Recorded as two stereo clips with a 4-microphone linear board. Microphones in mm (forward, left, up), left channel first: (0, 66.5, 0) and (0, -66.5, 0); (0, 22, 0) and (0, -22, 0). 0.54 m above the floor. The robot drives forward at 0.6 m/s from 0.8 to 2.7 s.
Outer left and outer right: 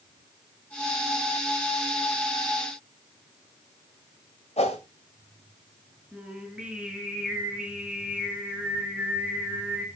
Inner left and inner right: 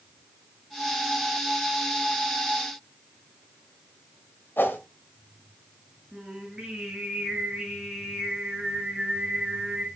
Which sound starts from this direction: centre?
Singing, at 6.1 s.